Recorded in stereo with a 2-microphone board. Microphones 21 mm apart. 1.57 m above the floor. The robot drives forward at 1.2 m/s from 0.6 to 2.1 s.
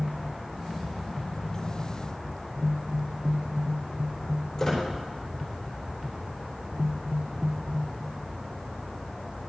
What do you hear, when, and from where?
4.6 s a squeak: 20° left (ahead or behind), 4 m